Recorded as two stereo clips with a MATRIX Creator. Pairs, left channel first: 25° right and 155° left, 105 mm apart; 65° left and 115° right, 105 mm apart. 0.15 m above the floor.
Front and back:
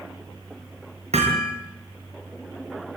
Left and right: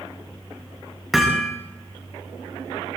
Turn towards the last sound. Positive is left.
turn(degrees=160)